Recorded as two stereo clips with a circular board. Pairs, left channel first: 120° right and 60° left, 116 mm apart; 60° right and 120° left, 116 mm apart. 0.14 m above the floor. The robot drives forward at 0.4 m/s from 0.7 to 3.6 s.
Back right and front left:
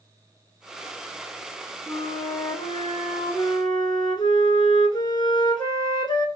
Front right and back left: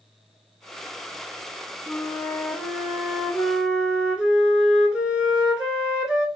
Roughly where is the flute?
Right.